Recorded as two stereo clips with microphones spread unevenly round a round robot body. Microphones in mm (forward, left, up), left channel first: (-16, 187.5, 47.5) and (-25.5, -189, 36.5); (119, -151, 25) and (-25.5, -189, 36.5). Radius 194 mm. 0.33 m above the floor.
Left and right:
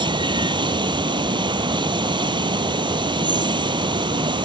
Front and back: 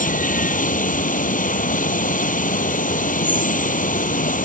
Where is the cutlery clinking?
No cutlery clinking in this recording.